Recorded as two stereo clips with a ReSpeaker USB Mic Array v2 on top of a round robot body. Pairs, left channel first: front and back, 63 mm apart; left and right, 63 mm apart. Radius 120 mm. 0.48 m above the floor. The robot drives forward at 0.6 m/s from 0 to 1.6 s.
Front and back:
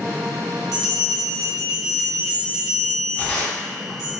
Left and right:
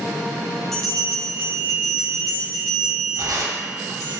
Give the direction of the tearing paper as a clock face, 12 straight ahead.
2 o'clock.